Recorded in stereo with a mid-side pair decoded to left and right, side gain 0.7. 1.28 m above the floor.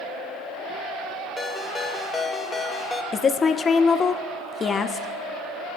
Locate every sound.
1.4 s a ringtone: 20° left, 1.0 m
3.1 s a woman speaking: 30° left, 0.6 m